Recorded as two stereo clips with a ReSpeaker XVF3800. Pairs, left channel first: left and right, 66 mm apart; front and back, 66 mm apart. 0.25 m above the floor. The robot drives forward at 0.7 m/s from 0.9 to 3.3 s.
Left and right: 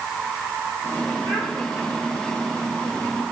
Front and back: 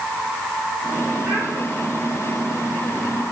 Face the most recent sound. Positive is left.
turn(degrees=-120)